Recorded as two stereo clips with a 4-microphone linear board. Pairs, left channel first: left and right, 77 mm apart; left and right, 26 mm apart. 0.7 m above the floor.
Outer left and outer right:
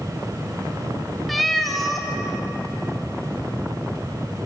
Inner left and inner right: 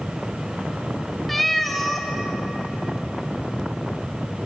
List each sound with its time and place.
1.3 s a cat meowing: centre (ahead or behind), 0.7 m